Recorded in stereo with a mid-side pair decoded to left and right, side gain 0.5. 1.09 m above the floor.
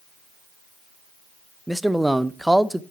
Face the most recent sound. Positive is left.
turn(degrees=-5)